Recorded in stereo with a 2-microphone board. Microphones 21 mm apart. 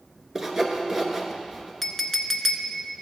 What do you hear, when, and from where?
0.3 s sawing: 25° right (ahead or behind), 1.1 m
1.8 s a clink: 10° left (ahead or behind), 0.6 m